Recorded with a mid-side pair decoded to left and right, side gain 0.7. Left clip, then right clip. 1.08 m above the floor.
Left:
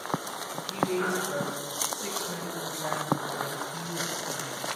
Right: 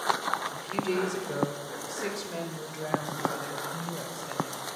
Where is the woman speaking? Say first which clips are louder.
Left 1 dB; 55° right, 4 m; by 4.6 s 35° right, 6.5 m.